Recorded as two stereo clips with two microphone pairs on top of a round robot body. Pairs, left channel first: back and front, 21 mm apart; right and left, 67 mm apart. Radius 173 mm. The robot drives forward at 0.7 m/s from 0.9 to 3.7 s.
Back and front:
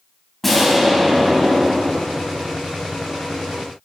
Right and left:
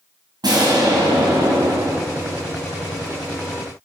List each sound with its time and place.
0.4 s an explosion: 95° left, 3 m; by 2.5 s 115° left, 3 m